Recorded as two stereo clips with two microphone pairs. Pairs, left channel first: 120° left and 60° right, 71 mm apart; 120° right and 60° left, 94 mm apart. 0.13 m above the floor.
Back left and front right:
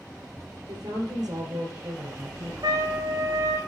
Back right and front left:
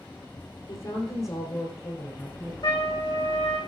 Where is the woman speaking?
95° right, 3 m; by 2.5 s 65° right, 2.5 m.